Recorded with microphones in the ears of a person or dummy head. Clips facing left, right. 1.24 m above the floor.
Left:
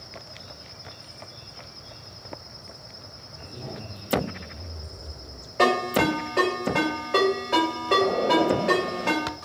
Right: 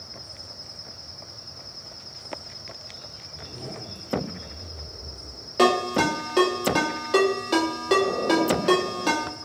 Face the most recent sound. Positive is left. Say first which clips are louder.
# right 1 dB
turn(degrees=-55)  # may be behind; listen again after turning